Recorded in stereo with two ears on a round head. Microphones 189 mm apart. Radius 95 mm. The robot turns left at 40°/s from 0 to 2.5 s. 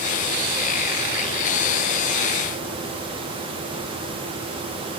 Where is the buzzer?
I don't hear a buzzer.